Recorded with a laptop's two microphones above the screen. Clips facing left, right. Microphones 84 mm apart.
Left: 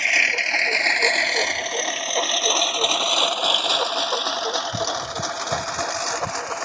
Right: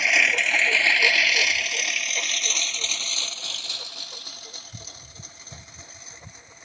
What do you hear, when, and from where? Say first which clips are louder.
0.0 s a lawn mower: even; 5° right (ahead or behind); by 6.7 s 85° left